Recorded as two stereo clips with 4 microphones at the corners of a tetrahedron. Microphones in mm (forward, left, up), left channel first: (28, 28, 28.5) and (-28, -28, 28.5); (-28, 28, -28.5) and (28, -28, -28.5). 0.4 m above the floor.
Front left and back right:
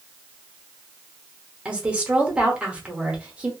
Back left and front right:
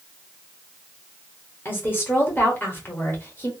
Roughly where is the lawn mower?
No lawn mower in this recording.